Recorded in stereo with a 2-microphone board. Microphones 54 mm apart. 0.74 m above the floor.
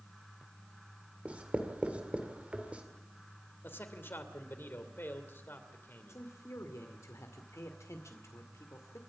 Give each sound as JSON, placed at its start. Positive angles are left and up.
{"t": 1.2, "sound": "writing", "side_deg": -25, "distance_m": 2.0}
{"t": 3.6, "sound": "a man speaking", "side_deg": 40, "distance_m": 2.5}
{"t": 6.1, "sound": "a man speaking", "side_deg": 65, "distance_m": 2.0}